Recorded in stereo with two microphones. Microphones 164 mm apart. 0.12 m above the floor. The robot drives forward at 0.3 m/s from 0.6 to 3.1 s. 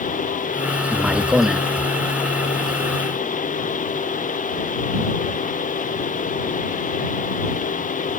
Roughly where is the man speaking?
Centre.